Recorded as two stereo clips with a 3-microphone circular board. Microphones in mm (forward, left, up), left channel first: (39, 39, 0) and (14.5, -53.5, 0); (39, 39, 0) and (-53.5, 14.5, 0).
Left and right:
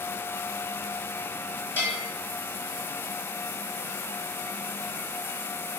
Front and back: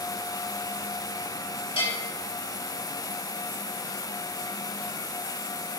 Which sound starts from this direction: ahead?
A bell, at 1.8 s.